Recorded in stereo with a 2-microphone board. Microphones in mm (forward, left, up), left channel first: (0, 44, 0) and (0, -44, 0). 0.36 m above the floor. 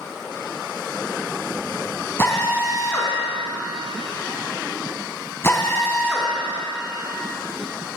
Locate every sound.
2.2 s a drill: 30° left (ahead or behind), 3 m